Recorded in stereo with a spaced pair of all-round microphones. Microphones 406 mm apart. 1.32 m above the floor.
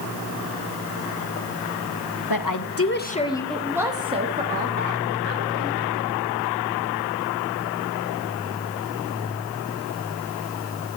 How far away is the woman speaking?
About 1.1 m.